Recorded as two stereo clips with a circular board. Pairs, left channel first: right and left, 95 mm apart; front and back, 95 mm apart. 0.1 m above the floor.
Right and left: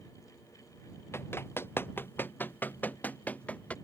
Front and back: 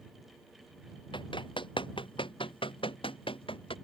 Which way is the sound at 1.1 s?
25° right.